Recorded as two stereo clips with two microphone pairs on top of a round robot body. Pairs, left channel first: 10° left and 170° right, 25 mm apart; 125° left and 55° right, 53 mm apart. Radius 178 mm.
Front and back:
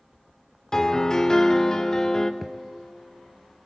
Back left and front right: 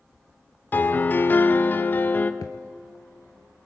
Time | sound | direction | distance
0.7 | a piano | 75° left | 0.7 m
2.4 | a thud | 110° left | 0.5 m